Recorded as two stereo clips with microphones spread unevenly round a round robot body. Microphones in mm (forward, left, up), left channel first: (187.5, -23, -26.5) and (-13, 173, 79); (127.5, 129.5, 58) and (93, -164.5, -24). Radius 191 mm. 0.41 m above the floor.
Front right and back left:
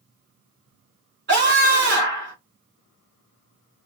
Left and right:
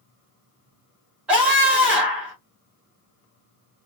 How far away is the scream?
About 1.6 m.